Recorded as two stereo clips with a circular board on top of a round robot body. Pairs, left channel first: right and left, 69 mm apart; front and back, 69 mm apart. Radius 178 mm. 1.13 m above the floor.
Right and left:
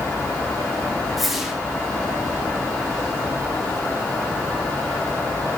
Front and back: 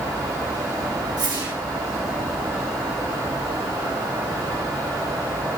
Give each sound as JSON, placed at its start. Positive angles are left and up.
{"t": 1.2, "sound": "a whoosh", "azimuth_deg": 175, "distance_m": 3.5}